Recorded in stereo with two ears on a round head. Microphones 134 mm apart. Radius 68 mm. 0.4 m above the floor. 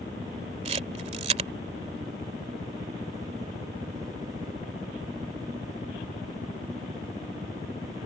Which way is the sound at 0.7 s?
45° right (ahead or behind).